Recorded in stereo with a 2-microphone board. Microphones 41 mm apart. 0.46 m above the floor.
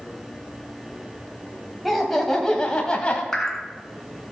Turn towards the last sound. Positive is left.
turn(degrees=10)  # may be behind; listen again after turning